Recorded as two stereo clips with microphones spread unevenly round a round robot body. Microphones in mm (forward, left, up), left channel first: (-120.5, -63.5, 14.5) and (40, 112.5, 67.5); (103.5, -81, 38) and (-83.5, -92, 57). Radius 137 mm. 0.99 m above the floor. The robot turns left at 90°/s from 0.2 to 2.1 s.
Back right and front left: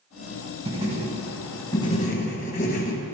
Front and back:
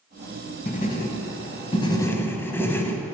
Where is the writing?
55° left, 0.9 m; by 3.1 s 75° right, 0.9 m.